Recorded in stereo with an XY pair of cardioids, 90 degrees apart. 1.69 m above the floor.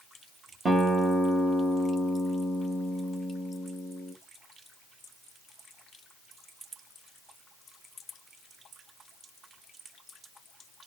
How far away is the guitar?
About 1.6 m.